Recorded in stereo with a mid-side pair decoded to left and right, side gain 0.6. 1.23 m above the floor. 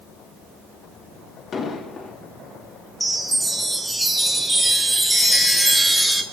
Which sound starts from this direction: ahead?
A chime, at 3.0 s.